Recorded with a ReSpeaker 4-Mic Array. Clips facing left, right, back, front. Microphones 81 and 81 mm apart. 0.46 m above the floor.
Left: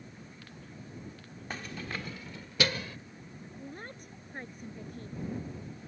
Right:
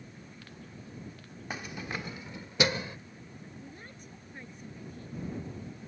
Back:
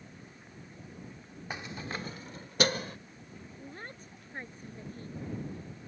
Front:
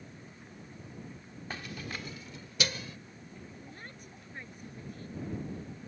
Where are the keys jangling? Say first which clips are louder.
Right 1 dB, back 2 dB; 150° right; by 3.0 s 155° right.